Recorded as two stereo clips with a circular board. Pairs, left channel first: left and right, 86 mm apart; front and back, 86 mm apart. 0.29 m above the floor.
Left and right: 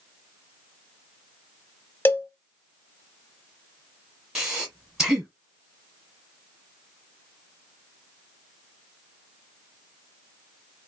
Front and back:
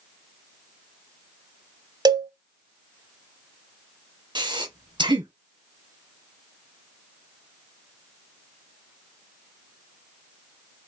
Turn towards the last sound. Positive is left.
turn(degrees=-175)